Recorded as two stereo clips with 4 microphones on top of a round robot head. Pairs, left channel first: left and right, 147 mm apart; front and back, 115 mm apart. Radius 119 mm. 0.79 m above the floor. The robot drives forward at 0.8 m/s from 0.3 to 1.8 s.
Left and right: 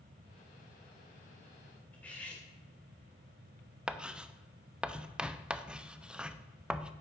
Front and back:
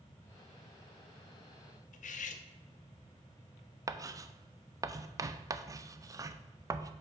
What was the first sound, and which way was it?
Cutlery clinking, 5° left.